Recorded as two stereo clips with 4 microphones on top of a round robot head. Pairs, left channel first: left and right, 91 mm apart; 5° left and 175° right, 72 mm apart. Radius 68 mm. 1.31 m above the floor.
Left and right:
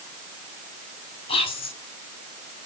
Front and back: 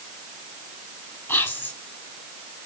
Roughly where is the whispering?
Ahead left.